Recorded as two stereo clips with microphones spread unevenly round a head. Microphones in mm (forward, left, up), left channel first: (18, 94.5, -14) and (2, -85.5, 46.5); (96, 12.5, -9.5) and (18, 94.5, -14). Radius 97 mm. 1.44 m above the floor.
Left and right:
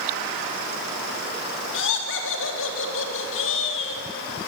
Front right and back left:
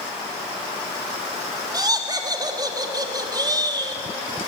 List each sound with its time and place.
1.7 s laughter: 80° left, 3.5 m